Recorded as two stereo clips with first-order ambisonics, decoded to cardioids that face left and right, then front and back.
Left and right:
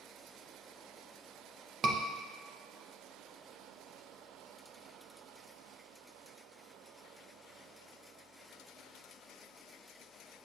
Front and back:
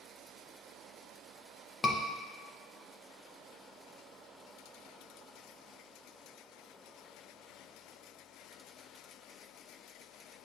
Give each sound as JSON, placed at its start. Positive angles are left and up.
{"t": 1.8, "sound": "a scream", "azimuth_deg": -65, "distance_m": 0.5}